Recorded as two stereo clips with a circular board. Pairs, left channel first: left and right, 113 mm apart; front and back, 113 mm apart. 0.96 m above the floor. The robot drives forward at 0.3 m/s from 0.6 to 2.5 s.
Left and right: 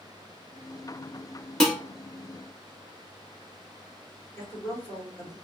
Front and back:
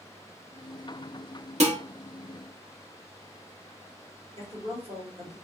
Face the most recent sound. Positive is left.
turn(degrees=160)